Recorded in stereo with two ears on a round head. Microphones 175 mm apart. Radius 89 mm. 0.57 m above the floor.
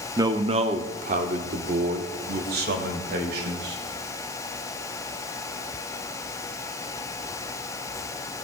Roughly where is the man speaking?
Centre.